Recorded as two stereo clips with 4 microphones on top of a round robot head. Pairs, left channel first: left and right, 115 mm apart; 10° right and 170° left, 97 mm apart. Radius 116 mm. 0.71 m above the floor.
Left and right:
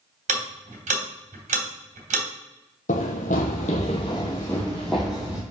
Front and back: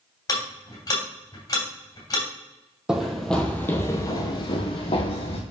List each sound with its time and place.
0.3 s ticking: 70° right, 3 m
2.9 s running footsteps: 90° left, 1.1 m; by 5.4 s 5° right, 1.4 m